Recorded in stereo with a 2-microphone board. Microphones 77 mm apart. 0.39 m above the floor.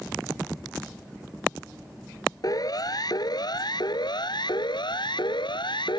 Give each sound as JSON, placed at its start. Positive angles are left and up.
{"t": 2.4, "sound": "a siren", "side_deg": 55}